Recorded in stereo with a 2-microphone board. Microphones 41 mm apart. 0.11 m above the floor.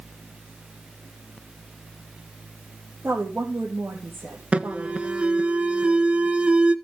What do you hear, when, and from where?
3.0 s a woman speaking: 70° right (ahead or behind), 3 m
4.5 s an alarm: 30° right (ahead or behind), 0.8 m